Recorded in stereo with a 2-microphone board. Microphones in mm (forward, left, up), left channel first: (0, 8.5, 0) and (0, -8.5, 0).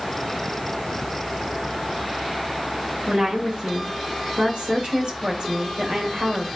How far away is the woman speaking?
About 1.9 m.